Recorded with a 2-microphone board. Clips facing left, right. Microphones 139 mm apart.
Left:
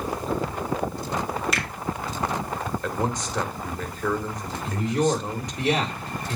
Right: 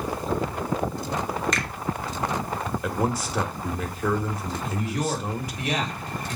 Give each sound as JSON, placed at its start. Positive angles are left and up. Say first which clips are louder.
{"t": 1.5, "sound": "a finger snap", "louder": "even", "side_deg": 5, "distance_m": 2.5}
{"t": 2.8, "sound": "a man speaking", "louder": "right 3 dB", "side_deg": -5, "distance_m": 1.5}
{"t": 4.6, "sound": "a man speaking", "louder": "left 6 dB", "side_deg": 30, "distance_m": 3.5}